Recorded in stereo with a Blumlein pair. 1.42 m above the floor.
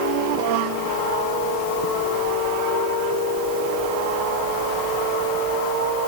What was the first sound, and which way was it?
Only background noise.